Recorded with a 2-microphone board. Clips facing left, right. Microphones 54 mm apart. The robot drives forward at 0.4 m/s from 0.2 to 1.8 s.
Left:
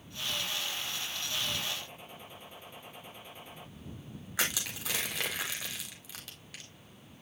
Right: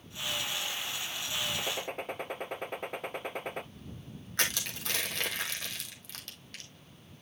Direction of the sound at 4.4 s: 5° left (ahead or behind).